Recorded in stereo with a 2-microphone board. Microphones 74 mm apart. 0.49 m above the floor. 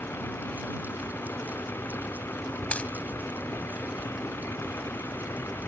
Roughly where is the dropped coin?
Centre.